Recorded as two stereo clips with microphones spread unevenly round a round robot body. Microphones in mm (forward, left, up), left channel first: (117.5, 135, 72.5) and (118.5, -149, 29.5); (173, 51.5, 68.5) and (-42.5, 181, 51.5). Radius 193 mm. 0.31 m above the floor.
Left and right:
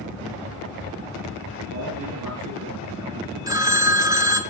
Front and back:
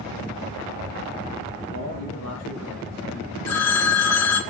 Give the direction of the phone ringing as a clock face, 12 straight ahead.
12 o'clock.